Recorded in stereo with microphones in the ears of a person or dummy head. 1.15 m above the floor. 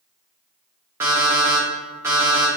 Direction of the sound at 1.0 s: 20° right (ahead or behind).